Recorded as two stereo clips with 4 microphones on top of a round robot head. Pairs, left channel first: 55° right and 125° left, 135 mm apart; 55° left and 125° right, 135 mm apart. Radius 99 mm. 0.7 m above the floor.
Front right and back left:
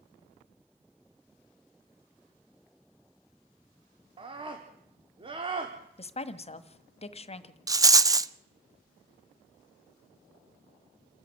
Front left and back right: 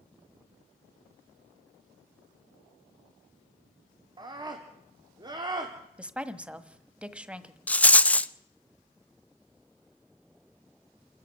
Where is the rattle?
120° left, 0.8 m.